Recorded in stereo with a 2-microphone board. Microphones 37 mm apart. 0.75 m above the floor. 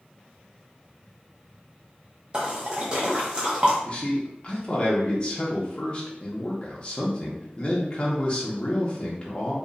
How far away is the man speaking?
About 0.7 m.